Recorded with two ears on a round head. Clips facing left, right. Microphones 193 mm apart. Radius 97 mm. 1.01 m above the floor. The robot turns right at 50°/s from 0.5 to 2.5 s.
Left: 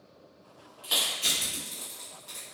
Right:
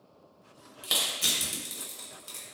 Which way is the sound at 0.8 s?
55° right (ahead or behind).